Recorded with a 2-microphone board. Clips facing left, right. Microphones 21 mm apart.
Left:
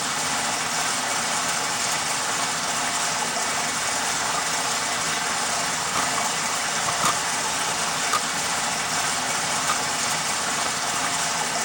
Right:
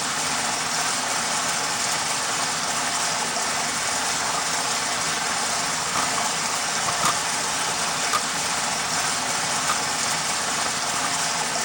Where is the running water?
20° right (ahead or behind), 5 m.